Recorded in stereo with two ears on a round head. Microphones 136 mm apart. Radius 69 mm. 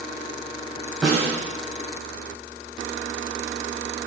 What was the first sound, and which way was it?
A snare drum, centre (ahead or behind).